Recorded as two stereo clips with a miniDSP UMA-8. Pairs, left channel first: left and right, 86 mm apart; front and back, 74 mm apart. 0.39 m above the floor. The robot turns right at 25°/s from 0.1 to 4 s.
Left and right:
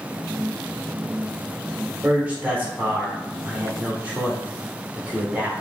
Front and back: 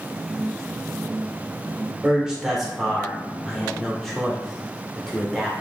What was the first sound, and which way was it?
A man speaking, 120° right.